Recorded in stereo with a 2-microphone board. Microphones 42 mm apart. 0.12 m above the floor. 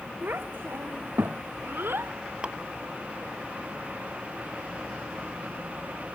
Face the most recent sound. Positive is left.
turn(degrees=-30)  # may be behind; listen again after turning